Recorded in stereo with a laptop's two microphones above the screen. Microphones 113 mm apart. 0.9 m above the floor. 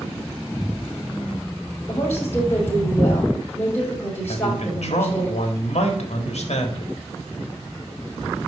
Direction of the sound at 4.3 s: 75° left (ahead or behind).